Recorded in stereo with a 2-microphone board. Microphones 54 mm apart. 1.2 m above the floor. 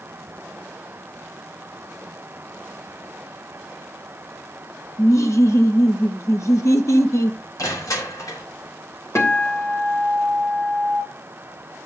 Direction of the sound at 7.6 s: 85° left.